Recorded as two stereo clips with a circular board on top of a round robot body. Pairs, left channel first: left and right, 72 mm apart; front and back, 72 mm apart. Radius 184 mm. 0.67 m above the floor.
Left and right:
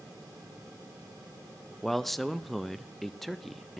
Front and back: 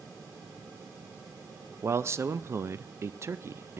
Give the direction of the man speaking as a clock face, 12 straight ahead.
6 o'clock.